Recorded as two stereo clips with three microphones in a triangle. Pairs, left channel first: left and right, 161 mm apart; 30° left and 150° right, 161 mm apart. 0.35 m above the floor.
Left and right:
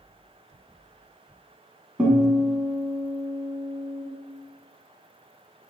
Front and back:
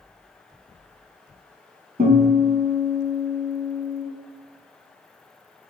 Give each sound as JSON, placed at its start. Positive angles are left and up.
{"t": 2.0, "sound": "a guitar", "azimuth_deg": -170, "distance_m": 0.9}